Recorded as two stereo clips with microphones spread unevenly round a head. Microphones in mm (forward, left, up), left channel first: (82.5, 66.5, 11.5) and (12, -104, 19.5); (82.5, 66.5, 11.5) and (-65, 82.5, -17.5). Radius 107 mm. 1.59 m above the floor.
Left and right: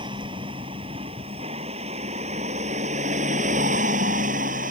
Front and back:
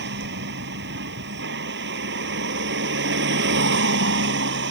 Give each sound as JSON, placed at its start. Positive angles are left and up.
{"t": 0.0, "sound": "a vehicle", "azimuth_deg": 175}